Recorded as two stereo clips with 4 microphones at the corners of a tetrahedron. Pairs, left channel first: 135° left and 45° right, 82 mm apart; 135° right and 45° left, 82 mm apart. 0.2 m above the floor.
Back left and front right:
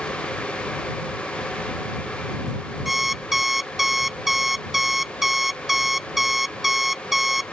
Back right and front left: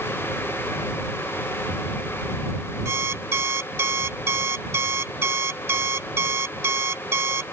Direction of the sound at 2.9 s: 40° left.